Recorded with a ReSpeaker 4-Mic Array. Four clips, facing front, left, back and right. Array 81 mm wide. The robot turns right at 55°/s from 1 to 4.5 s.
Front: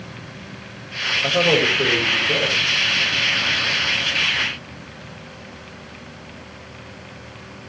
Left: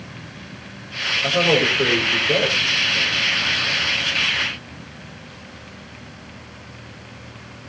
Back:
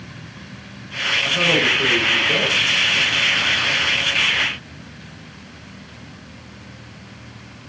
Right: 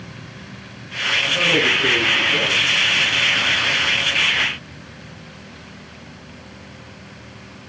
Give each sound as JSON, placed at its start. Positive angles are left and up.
{"t": 1.2, "sound": "a man speaking", "azimuth_deg": 25, "distance_m": 8.0}